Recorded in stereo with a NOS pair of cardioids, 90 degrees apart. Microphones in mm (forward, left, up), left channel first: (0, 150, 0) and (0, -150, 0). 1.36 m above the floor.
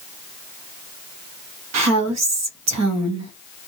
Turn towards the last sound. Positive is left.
turn(degrees=-60)